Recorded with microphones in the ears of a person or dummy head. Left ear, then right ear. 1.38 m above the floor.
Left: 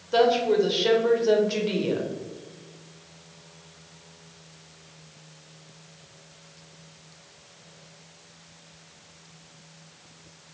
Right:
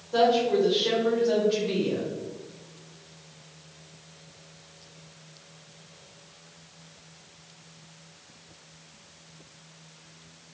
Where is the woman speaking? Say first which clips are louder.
Left 1 dB; 75° left (ahead or behind), 1.0 m.